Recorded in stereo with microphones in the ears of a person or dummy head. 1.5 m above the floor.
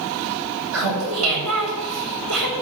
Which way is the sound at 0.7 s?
80° right.